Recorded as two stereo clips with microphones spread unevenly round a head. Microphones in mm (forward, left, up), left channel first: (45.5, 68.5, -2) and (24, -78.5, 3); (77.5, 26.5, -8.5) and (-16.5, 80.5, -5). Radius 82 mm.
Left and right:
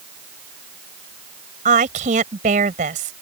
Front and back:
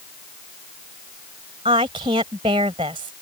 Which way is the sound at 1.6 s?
150° right.